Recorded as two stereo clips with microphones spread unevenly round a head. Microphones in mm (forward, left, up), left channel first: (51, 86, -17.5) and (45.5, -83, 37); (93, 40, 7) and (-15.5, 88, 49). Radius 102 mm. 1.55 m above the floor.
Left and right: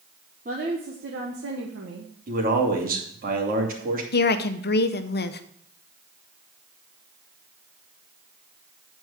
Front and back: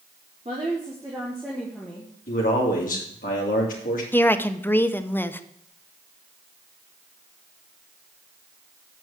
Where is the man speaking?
60° right, 2.5 m.